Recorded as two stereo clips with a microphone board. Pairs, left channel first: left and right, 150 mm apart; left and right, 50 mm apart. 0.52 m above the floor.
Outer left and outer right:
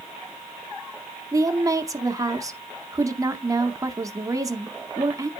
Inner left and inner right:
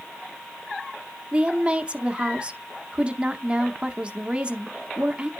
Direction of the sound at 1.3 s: 25° right (ahead or behind).